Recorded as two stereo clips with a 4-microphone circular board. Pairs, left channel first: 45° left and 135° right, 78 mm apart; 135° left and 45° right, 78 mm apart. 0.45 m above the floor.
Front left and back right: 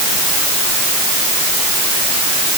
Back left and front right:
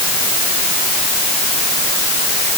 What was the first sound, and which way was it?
Only background noise.